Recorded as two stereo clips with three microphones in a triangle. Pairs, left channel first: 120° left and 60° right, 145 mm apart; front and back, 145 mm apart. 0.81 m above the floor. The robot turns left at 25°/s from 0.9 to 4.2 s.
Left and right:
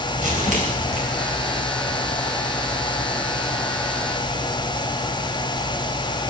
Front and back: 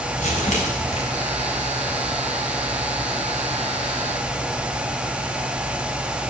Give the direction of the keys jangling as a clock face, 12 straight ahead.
I don't hear keys jangling.